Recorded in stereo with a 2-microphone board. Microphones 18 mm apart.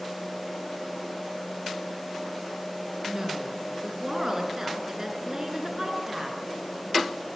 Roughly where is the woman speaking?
Right.